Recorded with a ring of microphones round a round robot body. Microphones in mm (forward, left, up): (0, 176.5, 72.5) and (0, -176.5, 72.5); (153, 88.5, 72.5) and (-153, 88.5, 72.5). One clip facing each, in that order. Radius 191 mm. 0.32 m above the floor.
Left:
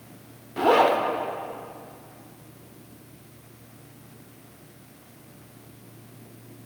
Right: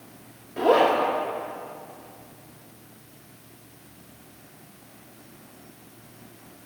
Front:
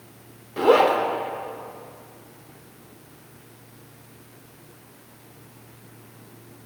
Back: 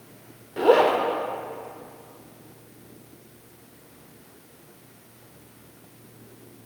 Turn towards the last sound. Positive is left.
turn(degrees=70)